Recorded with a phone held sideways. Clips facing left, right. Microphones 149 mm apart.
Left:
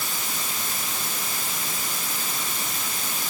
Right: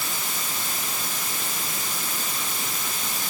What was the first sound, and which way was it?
Only background noise.